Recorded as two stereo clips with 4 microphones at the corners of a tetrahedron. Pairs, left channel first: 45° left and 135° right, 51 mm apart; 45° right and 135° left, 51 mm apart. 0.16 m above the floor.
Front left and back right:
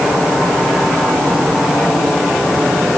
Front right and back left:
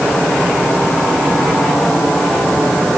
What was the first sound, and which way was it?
Only background noise.